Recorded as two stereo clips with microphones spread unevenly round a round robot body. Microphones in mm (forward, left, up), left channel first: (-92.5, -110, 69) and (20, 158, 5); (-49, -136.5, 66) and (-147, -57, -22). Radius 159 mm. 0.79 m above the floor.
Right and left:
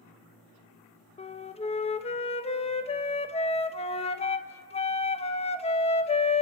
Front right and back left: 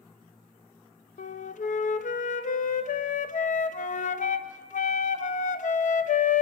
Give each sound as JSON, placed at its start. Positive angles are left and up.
{"t": 1.2, "sound": "a flute", "azimuth_deg": -45, "distance_m": 0.8}